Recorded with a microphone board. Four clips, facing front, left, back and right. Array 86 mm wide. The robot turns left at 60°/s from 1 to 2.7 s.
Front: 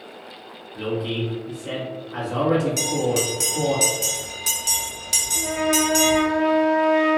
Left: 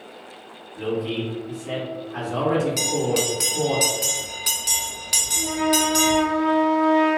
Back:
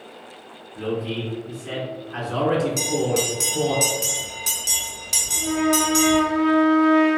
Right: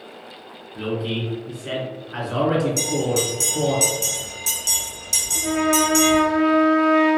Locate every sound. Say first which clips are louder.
0.8 s a man speaking: even, front 1 dB; 45° right, 1.7 m; by 3.8 s 145° right, 1.7 m
2.8 s a bell: right 1 dB, even; 85° left, 0.8 m
5.3 s a trumpet: right 2 dB, back 1 dB; 75° right, 1.4 m